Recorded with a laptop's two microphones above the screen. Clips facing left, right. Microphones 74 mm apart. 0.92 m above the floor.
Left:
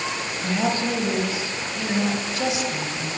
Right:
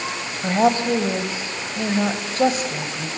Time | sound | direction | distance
0.4 | a woman speaking | 40° right (ahead or behind) | 4 m